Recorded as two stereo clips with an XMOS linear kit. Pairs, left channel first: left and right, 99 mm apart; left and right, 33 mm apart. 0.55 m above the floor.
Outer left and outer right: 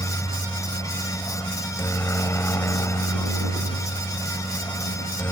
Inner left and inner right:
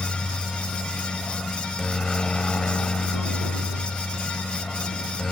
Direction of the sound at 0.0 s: 25° left (ahead or behind).